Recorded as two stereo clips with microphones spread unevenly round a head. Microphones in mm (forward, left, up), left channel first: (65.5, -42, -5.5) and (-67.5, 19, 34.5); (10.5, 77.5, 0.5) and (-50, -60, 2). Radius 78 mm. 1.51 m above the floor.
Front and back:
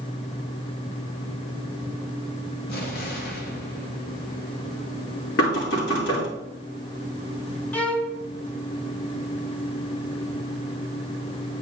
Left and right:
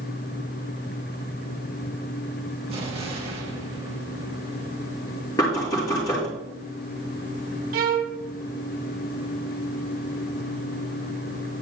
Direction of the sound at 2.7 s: 55° right.